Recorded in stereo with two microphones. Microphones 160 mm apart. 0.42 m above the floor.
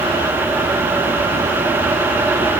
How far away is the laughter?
I don't hear laughter.